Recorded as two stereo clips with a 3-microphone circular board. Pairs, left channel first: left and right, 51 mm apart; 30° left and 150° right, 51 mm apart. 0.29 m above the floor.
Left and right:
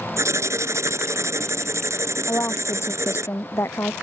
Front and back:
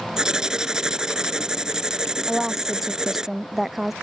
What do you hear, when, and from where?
0.2 s writing: 75° right
2.3 s a woman speaking: 125° left